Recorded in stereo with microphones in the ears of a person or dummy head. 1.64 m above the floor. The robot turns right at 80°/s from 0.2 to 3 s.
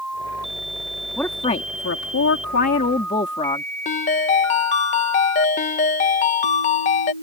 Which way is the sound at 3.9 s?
40° left (ahead or behind).